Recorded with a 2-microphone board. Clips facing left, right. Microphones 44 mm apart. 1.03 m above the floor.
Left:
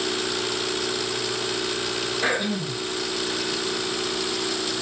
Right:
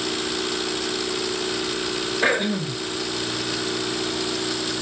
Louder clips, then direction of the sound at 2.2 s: Right 4 dB; 30° right (ahead or behind).